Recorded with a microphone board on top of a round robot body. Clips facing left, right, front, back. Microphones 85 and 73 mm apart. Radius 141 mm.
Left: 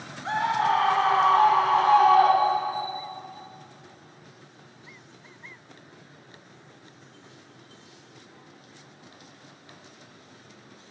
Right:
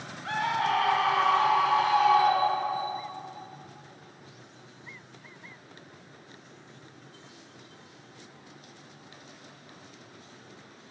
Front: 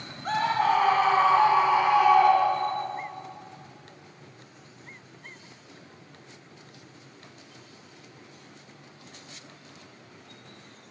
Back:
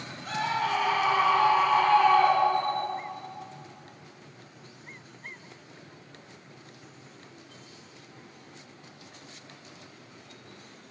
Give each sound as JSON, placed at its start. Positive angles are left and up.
{"t": 0.2, "sound": "a scream", "azimuth_deg": 30, "distance_m": 1.6}